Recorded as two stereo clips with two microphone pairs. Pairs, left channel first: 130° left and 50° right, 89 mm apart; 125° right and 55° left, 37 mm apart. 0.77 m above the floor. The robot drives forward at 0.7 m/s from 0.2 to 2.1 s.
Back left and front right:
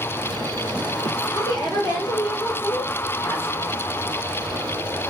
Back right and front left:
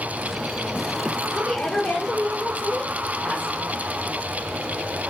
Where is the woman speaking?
170° left, 2.5 m.